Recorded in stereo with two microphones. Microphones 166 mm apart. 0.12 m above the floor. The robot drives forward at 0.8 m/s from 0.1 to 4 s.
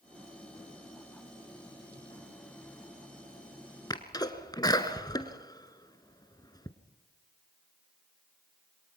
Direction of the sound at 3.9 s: 25° left (ahead or behind).